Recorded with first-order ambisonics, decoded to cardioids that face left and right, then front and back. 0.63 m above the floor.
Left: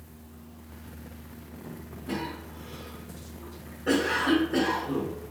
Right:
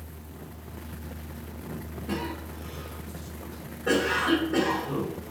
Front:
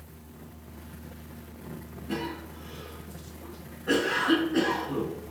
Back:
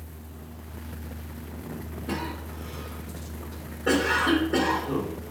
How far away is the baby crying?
No baby crying in this recording.